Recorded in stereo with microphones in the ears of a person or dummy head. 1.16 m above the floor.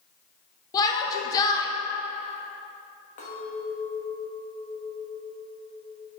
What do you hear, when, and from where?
0.7 s a shout: 30° left (ahead or behind), 0.8 m
3.2 s a clink: 35° left (ahead or behind), 1.3 m